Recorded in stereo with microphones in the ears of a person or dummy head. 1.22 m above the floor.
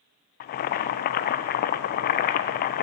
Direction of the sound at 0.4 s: 45° left (ahead or behind).